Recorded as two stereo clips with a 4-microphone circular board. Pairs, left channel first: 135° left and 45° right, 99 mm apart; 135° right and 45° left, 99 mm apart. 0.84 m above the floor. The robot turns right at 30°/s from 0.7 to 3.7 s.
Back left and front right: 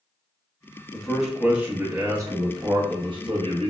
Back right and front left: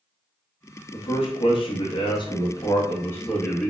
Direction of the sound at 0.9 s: 140° right.